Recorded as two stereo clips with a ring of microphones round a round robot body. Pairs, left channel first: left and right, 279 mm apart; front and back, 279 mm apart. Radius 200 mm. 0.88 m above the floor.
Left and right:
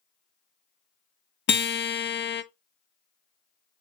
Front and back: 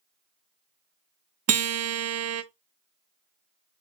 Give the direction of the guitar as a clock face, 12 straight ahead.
7 o'clock.